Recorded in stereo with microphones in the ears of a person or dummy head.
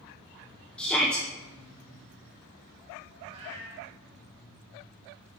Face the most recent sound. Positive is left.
turn(degrees=-40)  # may be behind; listen again after turning